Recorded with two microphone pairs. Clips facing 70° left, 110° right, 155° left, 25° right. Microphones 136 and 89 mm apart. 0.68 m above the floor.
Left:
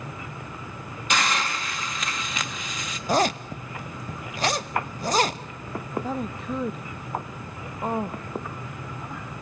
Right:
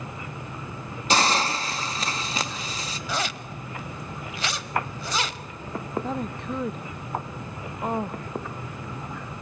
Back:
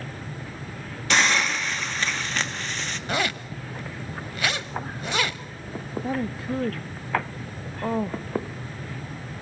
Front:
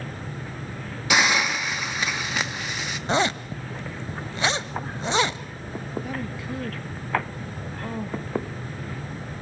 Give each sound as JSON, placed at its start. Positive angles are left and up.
{"t": 1.1, "sound": "a hiss", "azimuth_deg": -95, "distance_m": 1.1}
{"t": 3.1, "sound": "a zipper", "azimuth_deg": 35, "distance_m": 0.8}
{"t": 6.0, "sound": "a woman speaking", "azimuth_deg": 155, "distance_m": 0.5}